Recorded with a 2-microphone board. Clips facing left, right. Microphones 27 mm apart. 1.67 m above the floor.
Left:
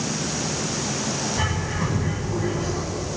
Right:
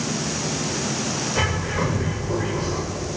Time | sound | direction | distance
1.4 | a bird | 55° right (ahead or behind) | 8 m